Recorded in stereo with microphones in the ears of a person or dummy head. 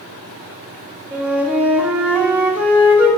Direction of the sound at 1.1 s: 10° right (ahead or behind).